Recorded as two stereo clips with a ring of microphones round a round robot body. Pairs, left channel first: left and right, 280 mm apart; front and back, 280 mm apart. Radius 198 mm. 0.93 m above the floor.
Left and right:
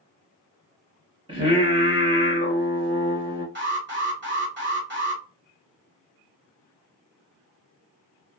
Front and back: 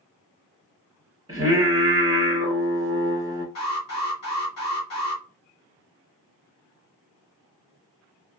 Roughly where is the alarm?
Ahead right.